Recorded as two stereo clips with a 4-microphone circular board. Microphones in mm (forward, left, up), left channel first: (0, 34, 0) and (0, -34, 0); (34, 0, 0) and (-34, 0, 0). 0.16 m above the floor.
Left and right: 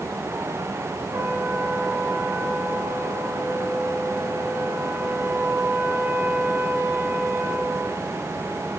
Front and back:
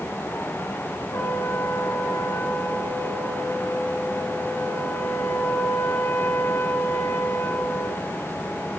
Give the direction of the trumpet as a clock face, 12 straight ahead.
1 o'clock.